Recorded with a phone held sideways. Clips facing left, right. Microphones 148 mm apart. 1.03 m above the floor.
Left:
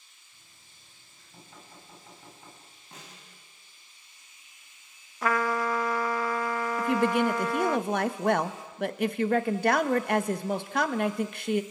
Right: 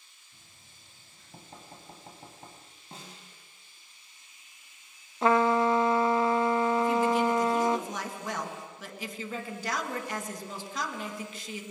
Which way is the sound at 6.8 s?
65° left (ahead or behind).